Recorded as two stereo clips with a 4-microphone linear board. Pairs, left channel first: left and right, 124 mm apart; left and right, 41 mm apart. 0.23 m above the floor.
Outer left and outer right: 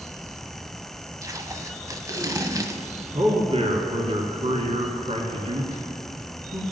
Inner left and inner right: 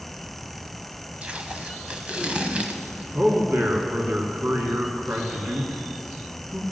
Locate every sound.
1.2 s tape being pulled: 30° right (ahead or behind), 1.0 m
3.1 s a man speaking: 55° right (ahead or behind), 2.5 m